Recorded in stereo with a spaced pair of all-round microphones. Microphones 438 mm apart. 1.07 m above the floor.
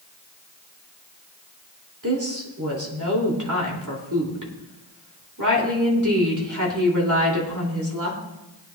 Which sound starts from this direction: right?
A woman speaking, at 2.0 s.